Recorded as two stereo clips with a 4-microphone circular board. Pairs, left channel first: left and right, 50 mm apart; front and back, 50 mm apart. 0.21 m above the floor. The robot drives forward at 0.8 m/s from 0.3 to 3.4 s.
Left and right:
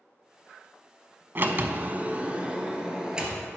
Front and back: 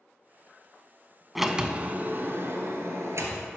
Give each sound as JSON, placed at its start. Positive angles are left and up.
{"t": 1.4, "sound": "a sliding door", "azimuth_deg": -95, "distance_m": 0.6}